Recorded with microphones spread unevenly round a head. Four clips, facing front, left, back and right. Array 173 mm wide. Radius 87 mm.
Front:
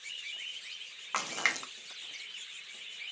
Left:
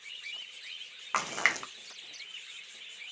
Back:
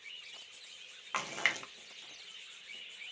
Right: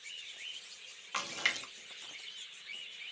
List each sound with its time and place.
1.1 s a splash: 70° left, 0.6 m